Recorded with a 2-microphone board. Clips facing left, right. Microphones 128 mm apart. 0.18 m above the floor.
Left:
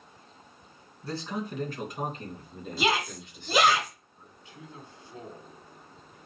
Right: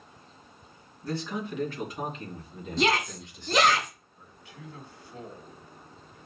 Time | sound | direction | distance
1.0 | a man speaking | 30° left (ahead or behind) | 1.9 m
2.8 | a shout | 5° left (ahead or behind) | 1.1 m
4.2 | a man speaking | 20° left (ahead or behind) | 1.4 m